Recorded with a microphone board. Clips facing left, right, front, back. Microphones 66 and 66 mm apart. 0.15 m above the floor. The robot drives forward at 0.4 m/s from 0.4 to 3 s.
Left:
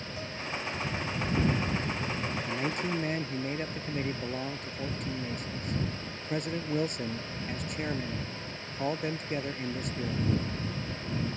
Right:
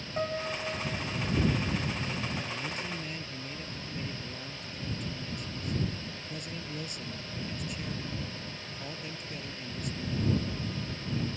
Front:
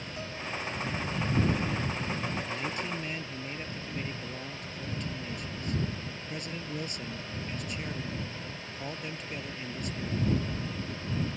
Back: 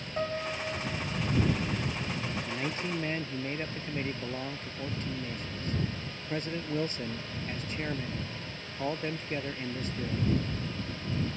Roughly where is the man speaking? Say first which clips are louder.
Left 5 dB, back 1 dB; behind left.